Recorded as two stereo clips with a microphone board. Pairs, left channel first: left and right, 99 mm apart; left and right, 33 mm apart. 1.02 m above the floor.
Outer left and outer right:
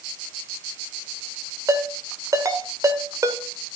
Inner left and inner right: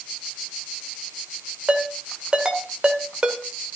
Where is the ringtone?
35° right (ahead or behind), 2 m.